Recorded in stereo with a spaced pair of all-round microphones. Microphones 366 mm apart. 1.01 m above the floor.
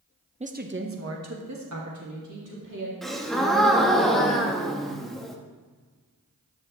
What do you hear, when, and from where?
0.4 s a woman speaking: 15° right (ahead or behind), 0.7 m; by 2.9 s 60° right (ahead or behind), 2.5 m
3.0 s a gasp: centre (ahead or behind), 0.9 m